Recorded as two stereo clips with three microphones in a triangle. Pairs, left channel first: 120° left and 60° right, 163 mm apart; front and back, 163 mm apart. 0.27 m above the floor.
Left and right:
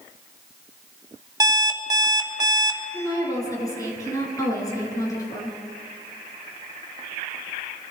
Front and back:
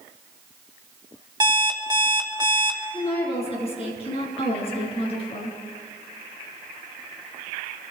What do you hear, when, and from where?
1.4 s an alarm clock: 120° right, 1.2 m
2.9 s a woman speaking: 50° left, 4 m